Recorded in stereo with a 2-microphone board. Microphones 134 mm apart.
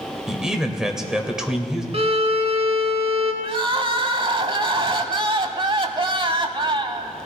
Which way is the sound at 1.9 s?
50° right (ahead or behind).